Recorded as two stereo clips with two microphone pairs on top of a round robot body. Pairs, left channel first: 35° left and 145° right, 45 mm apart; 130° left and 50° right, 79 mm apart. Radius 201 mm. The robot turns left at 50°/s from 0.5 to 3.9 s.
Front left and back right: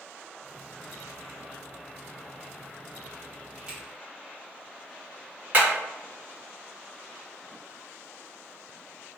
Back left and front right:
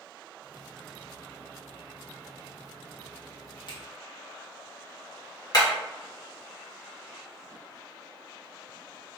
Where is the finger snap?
145° left, 1.6 m; by 3.8 s 140° left, 1.6 m.